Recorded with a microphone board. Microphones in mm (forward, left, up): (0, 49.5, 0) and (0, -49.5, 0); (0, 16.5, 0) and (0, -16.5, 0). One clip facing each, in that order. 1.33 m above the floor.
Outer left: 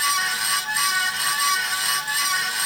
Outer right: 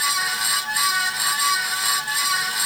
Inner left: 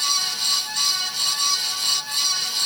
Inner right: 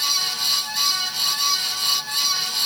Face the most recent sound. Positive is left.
No sound to turn to.